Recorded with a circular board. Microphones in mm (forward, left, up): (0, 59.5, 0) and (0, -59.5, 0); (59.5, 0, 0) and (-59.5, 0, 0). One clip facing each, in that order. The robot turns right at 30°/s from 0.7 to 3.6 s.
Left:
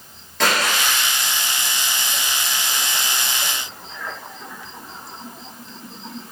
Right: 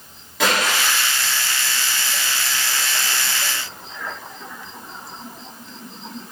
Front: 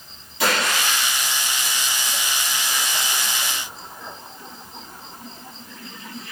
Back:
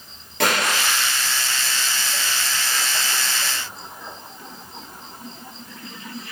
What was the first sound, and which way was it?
A splash, 175° right.